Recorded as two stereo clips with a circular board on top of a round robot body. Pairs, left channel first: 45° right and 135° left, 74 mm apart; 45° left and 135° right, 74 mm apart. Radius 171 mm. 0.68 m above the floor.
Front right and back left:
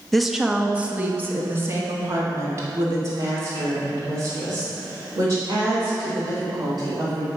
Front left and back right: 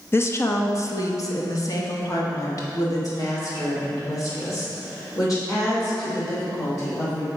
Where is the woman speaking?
40° left, 0.7 m; by 7.3 s 90° left, 4 m.